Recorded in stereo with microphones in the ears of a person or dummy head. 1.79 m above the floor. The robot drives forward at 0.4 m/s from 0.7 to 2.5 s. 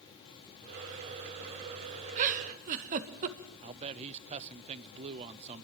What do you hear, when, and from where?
2.2 s a giggle: 35° right (ahead or behind), 1.8 m; by 3.5 s 40° right (ahead or behind), 1.7 m
3.6 s a man speaking: 30° right (ahead or behind), 0.9 m